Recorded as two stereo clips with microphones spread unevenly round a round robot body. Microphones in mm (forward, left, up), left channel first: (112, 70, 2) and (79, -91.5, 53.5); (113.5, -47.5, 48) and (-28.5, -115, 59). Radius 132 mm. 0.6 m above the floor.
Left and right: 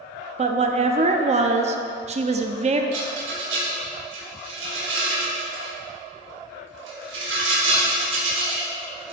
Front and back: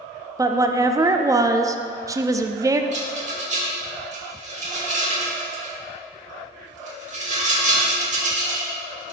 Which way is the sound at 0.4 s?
110° right.